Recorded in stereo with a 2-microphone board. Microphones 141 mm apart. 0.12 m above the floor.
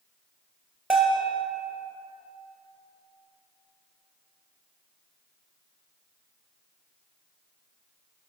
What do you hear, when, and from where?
0.9 s a bell: 5° right (ahead or behind), 1.5 m